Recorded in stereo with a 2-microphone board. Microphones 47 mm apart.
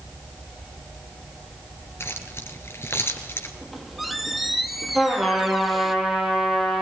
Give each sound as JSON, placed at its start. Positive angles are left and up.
{"t": 2.0, "sound": "keys jangling", "side_deg": 65, "distance_m": 3.0}
{"t": 3.6, "sound": "a squeak", "side_deg": 0, "distance_m": 2.0}
{"t": 5.0, "sound": "a trumpet", "side_deg": -5, "distance_m": 7.5}